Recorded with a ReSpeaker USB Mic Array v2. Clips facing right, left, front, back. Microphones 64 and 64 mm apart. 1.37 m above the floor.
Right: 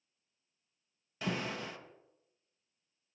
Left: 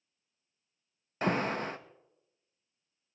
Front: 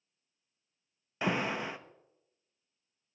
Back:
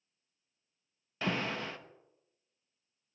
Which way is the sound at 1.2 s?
70° left.